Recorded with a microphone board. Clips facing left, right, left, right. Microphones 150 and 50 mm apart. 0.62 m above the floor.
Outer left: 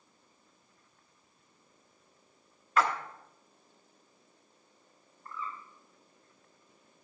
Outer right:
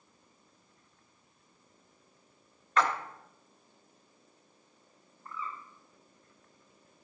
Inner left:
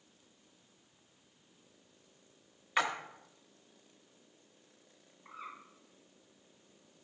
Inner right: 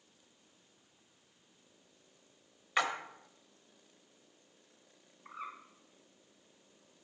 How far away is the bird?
About 2 m.